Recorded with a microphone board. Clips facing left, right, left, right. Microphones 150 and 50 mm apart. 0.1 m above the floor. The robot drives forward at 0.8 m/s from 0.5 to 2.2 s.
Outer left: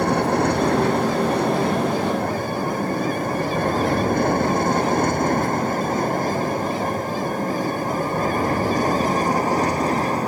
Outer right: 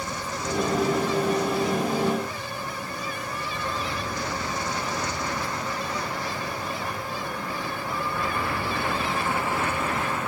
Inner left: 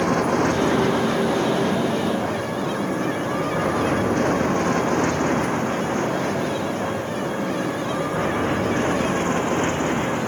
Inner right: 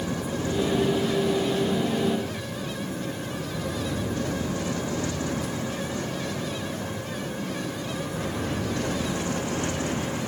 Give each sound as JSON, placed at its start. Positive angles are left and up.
{"t": 0.0, "sound": "an aircraft", "side_deg": 65}